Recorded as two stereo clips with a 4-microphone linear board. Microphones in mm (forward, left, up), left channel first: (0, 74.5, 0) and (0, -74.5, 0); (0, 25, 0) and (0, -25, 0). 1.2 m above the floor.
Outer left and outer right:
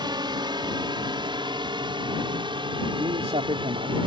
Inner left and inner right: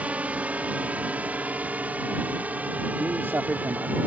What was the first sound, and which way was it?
A drone, 30° right (ahead or behind).